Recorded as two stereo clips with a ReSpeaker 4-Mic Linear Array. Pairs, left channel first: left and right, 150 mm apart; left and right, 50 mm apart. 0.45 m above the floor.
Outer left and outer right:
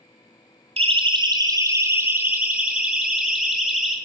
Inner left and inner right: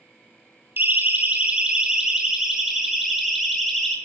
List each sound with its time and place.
0.8 s a siren: 45° right (ahead or behind), 2.5 m; by 4.0 s 5° left (ahead or behind), 5.5 m